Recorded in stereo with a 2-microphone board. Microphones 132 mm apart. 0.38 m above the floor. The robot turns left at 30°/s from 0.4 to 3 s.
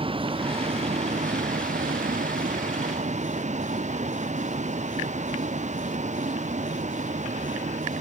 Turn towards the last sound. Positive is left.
turn(degrees=-65)  # may be behind; listen again after turning